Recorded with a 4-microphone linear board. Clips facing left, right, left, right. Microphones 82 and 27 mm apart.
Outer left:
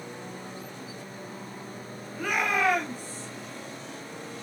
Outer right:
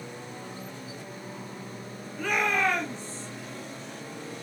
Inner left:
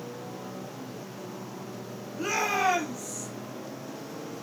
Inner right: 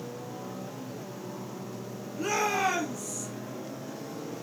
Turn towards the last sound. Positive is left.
turn(degrees=10)  # may be behind; listen again after turning